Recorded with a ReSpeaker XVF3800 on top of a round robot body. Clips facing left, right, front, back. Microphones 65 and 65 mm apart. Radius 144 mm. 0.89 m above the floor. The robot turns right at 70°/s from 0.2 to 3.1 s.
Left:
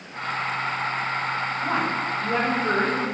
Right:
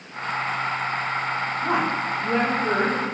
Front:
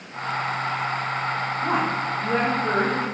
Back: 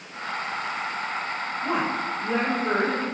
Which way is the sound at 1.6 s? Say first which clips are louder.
Right 2 dB, front 1 dB; 25° right.